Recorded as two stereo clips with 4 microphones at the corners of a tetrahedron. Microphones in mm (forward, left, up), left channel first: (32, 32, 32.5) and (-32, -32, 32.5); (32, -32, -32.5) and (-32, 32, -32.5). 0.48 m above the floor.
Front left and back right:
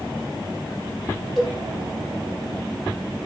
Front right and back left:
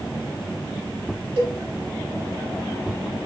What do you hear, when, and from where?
1.4 s a cowbell: 130° left, 0.9 m